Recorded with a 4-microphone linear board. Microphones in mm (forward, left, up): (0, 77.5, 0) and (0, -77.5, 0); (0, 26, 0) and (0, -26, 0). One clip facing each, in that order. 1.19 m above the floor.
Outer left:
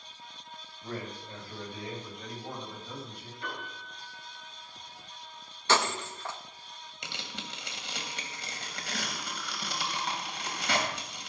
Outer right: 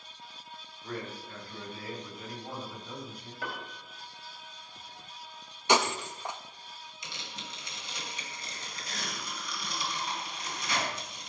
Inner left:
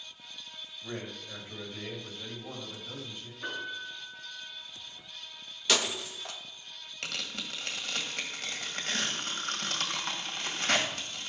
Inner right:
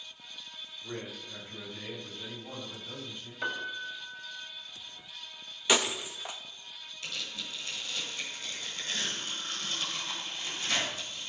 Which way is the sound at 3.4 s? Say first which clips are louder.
Outer right 1 dB, inner right 3 dB; 80° right.